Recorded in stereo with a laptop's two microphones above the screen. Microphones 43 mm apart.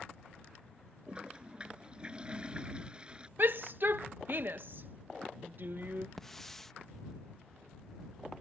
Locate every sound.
1.1 s a toilet flushing: 25° right (ahead or behind)
3.4 s a shout: 50° right (ahead or behind)
6.2 s a hiss: 10° left (ahead or behind)